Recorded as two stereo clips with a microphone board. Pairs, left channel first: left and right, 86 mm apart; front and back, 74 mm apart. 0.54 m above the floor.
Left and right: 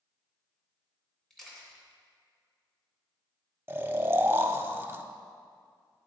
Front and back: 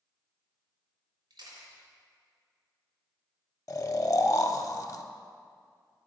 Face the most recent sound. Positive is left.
turn(degrees=-35)